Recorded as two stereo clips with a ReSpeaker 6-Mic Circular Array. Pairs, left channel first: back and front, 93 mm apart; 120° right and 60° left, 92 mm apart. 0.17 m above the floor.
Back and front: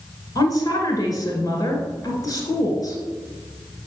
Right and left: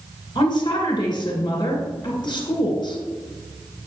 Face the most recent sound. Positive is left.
turn(degrees=-140)